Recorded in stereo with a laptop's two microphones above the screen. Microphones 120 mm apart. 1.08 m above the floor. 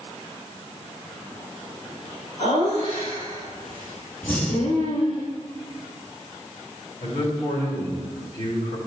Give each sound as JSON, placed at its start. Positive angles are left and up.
{"t": 2.4, "sound": "laughter", "side_deg": 75, "distance_m": 3.5}
{"t": 4.2, "sound": "breathing", "side_deg": 15, "distance_m": 1.5}
{"t": 7.0, "sound": "a man speaking", "side_deg": 55, "distance_m": 3.0}